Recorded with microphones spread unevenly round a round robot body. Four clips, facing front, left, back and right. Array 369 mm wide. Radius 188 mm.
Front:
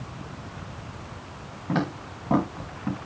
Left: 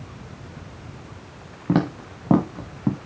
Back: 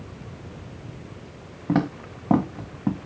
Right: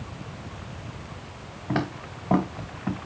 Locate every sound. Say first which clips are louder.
1.7 s footsteps: left 6 dB, back 4 dB; 100° left, 3 m; by 3.0 s 110° left, 2.0 m